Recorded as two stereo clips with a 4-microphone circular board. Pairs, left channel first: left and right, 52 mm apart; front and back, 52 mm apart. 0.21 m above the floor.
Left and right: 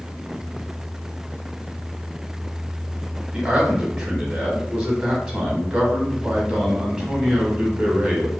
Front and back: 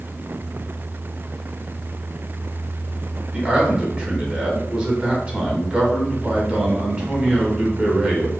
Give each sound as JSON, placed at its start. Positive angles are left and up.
{"t": 3.3, "sound": "a man speaking", "azimuth_deg": -150, "distance_m": 1.1}